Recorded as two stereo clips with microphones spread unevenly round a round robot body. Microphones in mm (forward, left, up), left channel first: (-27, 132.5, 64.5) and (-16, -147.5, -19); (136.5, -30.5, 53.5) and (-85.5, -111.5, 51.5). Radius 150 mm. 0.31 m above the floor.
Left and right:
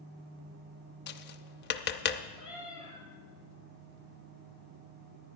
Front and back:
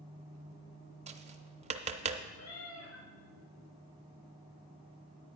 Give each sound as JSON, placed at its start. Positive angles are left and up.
{"t": 1.1, "sound": "tapping", "azimuth_deg": 150, "distance_m": 0.5}
{"t": 2.4, "sound": "a cat meowing", "azimuth_deg": 0, "distance_m": 3.5}